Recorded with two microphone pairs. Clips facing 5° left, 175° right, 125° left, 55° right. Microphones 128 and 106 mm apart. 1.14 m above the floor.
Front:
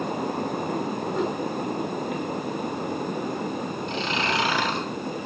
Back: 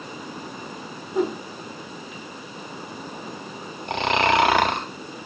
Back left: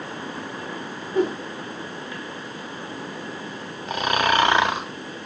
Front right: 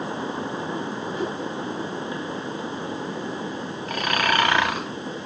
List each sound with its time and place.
1.1 s a whoosh: 105° left, 1.4 m
3.9 s snoring: 165° right, 0.6 m